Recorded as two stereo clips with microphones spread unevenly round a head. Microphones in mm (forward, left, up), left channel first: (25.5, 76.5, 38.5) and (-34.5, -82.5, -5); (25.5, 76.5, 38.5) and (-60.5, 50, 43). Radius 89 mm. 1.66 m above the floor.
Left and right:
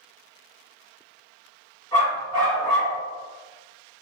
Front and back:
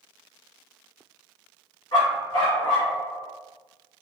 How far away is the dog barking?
About 1.7 m.